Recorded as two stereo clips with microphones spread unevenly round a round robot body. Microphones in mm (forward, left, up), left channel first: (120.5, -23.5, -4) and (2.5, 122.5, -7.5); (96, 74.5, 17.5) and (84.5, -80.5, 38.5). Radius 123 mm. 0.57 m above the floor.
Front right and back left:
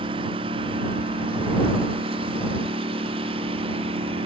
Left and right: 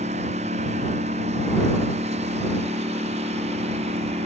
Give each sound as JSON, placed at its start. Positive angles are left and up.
{"t": 0.0, "sound": "a lawn mower", "azimuth_deg": -160}